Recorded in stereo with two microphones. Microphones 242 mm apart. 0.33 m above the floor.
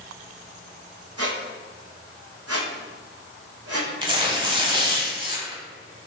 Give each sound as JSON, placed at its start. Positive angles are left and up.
{"t": 1.2, "sound": "a squeak", "side_deg": -80, "distance_m": 1.3}
{"t": 4.0, "sound": "tearing paper", "side_deg": -20, "distance_m": 0.9}